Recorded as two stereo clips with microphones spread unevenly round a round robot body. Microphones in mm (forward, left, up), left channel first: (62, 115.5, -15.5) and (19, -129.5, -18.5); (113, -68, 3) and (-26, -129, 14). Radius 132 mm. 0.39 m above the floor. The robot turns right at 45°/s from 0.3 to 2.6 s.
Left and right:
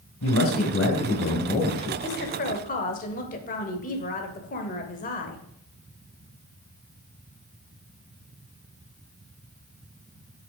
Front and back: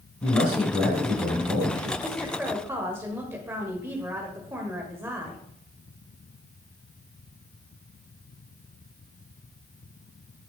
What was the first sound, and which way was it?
A man speaking, 85° left.